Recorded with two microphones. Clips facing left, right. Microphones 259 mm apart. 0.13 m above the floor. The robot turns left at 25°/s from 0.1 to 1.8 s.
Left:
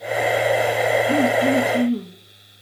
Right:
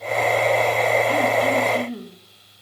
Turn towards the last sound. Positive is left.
turn(degrees=25)  # may be behind; listen again after turning